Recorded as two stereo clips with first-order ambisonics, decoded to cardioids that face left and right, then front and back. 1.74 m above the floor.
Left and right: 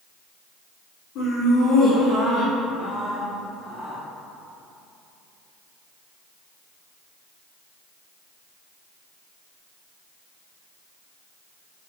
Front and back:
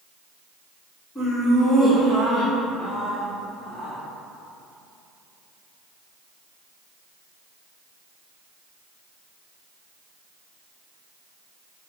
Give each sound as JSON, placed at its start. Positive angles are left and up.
{"t": 1.1, "sound": "laughter", "azimuth_deg": 70, "distance_m": 1.8}